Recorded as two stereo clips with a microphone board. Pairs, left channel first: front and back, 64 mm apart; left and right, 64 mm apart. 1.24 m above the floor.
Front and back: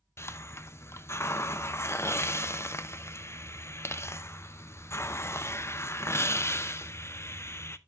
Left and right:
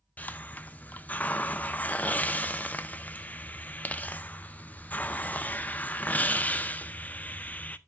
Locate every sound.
0.2 s a hiss: 30° left, 0.5 m